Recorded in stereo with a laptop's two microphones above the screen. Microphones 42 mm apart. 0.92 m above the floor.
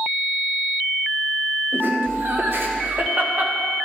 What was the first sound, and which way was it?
Laughter, 75° right (ahead or behind).